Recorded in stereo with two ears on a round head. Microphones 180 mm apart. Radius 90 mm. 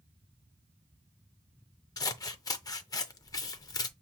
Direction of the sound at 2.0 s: 20° left (ahead or behind).